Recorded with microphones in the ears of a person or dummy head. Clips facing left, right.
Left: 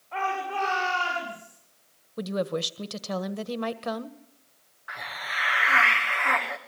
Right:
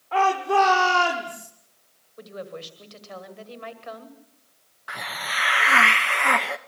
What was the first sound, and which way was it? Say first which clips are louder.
A shout: right 9 dB; 85° right.